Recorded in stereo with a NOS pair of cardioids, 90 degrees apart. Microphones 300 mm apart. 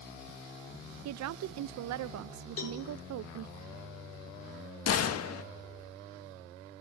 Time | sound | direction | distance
1.1 | a woman speaking | 65° right | 0.6 m
2.6 | a cowbell | 50° left | 5 m
4.9 | a gunshot | 55° left | 1.4 m